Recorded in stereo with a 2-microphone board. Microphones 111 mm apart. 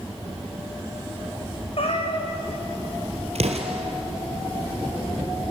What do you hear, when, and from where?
1.8 s a cat meowing: 60° left (ahead or behind), 3.5 m
3.4 s an explosion: 70° right (ahead or behind), 2.5 m